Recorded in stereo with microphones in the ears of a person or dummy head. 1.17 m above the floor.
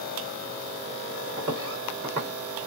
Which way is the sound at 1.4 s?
25° right (ahead or behind).